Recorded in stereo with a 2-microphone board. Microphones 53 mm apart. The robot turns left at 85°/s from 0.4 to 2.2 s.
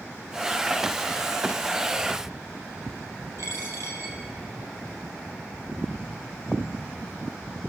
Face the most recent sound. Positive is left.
turn(degrees=-60)  # may be behind; listen again after turning